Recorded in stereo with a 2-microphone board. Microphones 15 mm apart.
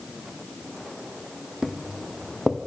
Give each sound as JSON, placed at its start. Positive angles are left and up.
{"t": 1.6, "sound": "footsteps", "side_deg": -35, "distance_m": 1.0}